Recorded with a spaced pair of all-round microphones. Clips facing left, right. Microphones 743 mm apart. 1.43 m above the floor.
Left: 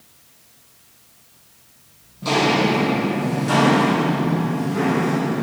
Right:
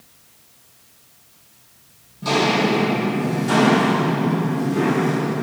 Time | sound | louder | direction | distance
2.2 | footsteps | even | 5° left (ahead or behind) | 3 m